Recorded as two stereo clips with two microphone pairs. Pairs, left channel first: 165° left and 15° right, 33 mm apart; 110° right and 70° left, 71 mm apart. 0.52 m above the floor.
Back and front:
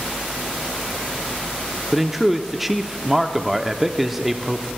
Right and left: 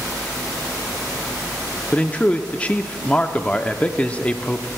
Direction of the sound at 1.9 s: 85° right.